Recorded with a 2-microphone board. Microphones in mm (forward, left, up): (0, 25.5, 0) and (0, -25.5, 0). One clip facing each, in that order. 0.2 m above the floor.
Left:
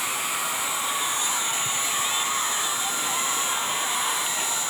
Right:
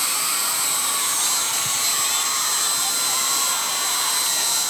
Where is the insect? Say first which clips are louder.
Right 1 dB; 70° right (ahead or behind).